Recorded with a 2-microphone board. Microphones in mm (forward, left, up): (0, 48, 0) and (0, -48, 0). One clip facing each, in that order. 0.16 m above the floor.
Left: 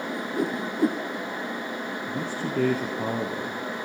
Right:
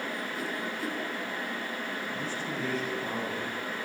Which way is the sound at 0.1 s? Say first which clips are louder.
Left 7 dB; 65° left (ahead or behind).